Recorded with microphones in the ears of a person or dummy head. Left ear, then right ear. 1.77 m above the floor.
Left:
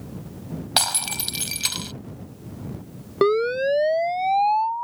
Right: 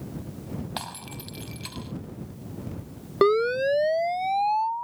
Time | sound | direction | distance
0.8 | breaking glass | 50° left (ahead or behind) | ?
3.2 | a siren | 5° right (ahead or behind) | ?